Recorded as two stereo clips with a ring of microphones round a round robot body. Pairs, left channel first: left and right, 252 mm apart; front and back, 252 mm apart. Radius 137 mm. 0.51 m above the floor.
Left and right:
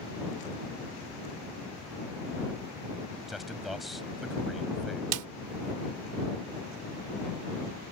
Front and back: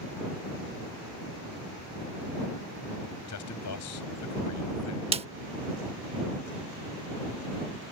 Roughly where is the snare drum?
Right.